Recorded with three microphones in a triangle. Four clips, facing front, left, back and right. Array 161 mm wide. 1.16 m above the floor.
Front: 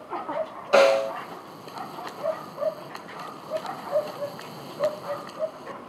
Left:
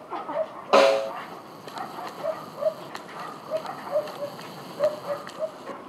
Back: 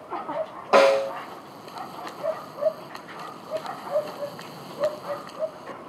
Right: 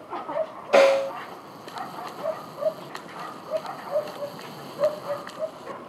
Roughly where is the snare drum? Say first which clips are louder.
Right 1 dB, back 1 dB; behind left.